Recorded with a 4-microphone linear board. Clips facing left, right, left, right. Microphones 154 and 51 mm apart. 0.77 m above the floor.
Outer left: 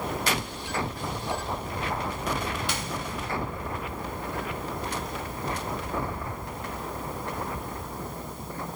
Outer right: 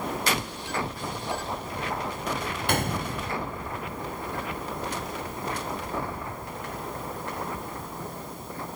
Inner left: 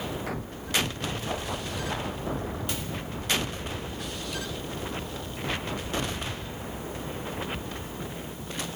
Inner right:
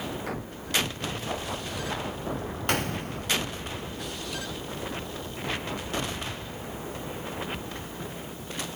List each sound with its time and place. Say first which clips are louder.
2.7 s a gunshot: outer right 5 dB, inner right 5 dB; 55° right (ahead or behind), 0.5 m